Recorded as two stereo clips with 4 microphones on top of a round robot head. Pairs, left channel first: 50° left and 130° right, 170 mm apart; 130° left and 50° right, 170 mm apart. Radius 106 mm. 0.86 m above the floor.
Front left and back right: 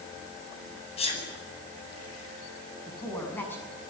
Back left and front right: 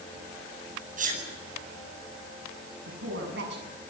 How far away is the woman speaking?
About 6.5 m.